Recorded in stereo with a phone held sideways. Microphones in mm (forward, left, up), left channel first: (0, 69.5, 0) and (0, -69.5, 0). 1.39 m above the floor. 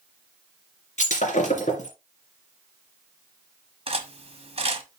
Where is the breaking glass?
60° left (ahead or behind), 2.5 m.